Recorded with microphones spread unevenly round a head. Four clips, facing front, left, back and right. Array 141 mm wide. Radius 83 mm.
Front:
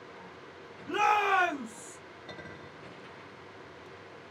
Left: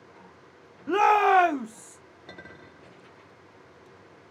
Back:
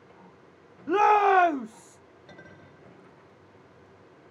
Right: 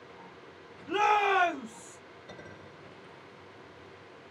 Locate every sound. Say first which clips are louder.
0.9 s a shout: left 6 dB, back 7 dB; 140° left, 0.6 m
2.3 s a clink: left 2 dB, front 3 dB; 55° left, 2.5 m